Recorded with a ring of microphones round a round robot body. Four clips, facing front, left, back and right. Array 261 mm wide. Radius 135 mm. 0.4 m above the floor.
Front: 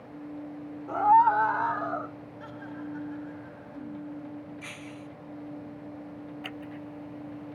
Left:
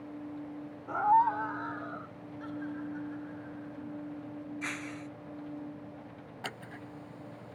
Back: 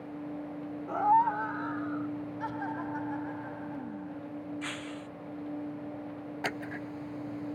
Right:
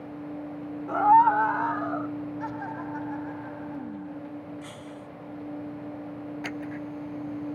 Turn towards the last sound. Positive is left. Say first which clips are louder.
# right 6 dB, back 3 dB
turn(degrees=-175)